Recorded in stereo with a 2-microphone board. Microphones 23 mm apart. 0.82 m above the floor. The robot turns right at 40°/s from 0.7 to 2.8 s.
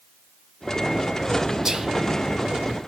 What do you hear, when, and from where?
1.6 s whispering: 30° right (ahead or behind), 1.1 m; by 1.9 s 35° right (ahead or behind), 1.1 m